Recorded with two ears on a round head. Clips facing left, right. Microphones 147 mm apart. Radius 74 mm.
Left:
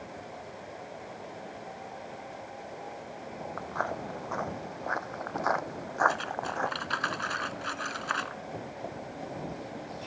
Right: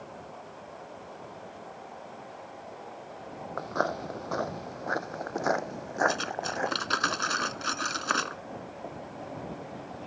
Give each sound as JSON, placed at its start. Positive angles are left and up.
{"t": 3.6, "sound": "footsteps", "side_deg": -50}
{"t": 6.1, "sound": "cutlery clinking", "side_deg": -55}